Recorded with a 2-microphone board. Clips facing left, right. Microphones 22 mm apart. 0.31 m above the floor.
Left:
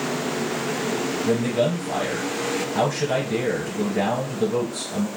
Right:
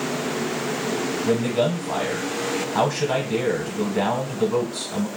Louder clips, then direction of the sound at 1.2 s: Even; 30° right (ahead or behind).